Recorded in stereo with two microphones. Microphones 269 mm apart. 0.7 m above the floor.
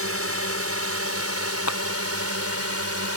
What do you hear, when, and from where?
0.0 s a drone: 60° right (ahead or behind); by 3.2 s 65° right (ahead or behind)
1.7 s a clap: 80° left